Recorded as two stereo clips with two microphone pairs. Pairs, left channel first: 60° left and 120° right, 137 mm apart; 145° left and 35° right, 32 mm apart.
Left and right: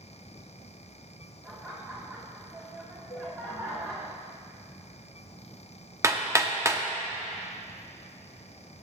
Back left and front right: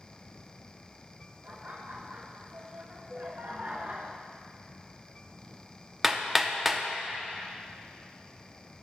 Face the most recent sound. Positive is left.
turn(degrees=-115)